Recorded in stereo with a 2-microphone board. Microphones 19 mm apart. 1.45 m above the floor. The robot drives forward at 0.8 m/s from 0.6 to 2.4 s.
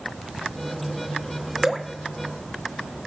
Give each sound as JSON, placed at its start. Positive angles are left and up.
{"t": 1.6, "sound": "dripping", "side_deg": -15, "distance_m": 0.8}